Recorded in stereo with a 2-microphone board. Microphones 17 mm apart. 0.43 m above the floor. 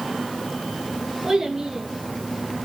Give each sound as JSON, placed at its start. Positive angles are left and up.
{"t": 1.2, "sound": "a child speaking", "side_deg": -45, "distance_m": 6.0}